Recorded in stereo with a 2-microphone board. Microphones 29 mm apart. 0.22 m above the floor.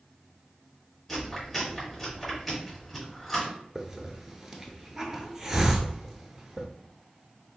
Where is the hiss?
15° right (ahead or behind), 0.7 m.